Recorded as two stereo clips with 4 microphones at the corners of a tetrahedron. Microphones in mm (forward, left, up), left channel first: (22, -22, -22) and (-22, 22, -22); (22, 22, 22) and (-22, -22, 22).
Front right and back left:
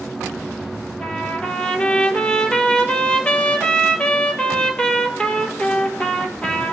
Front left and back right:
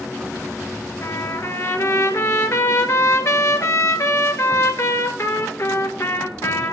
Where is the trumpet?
25° left, 1.4 m.